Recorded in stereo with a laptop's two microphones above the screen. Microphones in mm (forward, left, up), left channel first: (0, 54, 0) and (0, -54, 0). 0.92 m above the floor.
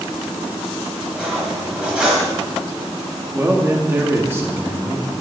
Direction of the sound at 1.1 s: 10° right (ahead or behind).